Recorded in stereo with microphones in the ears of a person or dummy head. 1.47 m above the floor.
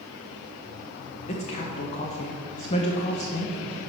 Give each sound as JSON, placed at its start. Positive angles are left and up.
{"t": 1.3, "sound": "a woman speaking", "side_deg": 40, "distance_m": 0.7}